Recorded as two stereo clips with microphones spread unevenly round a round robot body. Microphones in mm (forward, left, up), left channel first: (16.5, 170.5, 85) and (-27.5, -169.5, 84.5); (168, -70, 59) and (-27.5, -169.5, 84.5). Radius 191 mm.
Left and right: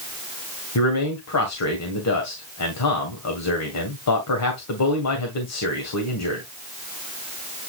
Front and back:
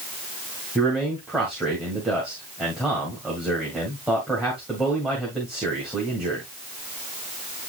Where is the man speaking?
115° left, 2 m.